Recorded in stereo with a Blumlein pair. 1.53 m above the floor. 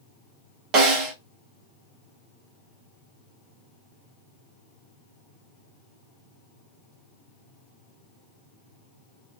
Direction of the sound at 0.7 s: 35° right.